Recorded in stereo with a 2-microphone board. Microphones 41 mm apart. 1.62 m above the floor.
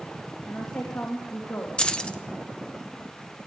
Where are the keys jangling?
25° left (ahead or behind), 0.8 m.